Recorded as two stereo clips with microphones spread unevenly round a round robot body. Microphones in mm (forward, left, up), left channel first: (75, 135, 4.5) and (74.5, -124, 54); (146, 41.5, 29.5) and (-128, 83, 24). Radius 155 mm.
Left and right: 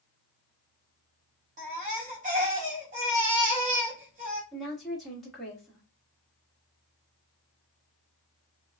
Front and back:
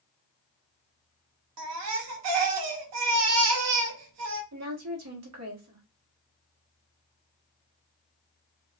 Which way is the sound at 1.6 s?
160° right.